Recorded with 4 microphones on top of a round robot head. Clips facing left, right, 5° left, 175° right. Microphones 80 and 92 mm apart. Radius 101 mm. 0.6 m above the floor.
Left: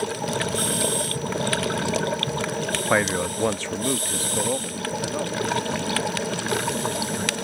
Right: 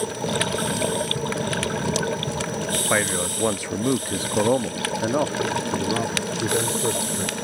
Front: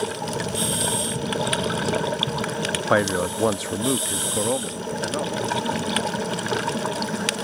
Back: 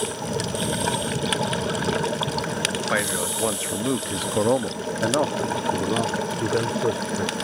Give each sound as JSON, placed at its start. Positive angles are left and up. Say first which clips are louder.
{"t": 2.9, "sound": "a man speaking", "louder": "left 3 dB, front 8 dB", "azimuth_deg": 15}